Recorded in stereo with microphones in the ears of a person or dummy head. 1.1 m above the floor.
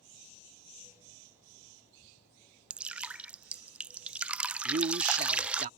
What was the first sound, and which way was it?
Dripping, 5° right (ahead or behind).